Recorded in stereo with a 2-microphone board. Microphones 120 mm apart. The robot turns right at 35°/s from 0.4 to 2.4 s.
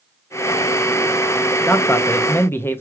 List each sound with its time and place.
1.7 s a man speaking: 20° left (ahead or behind), 0.5 m